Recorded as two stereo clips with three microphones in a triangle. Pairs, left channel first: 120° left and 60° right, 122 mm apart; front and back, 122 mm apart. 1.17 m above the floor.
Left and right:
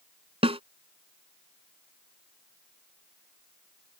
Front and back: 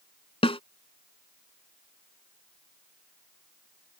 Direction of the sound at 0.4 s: 30° right.